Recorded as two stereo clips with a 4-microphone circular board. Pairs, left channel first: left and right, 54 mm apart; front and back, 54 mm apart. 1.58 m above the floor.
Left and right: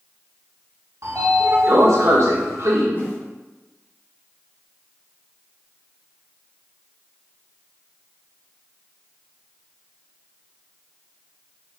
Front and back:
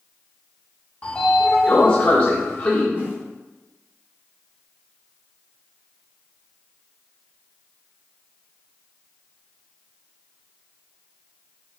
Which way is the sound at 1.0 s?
60° right.